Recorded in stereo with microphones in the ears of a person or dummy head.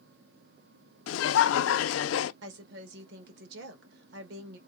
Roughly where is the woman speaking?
Right.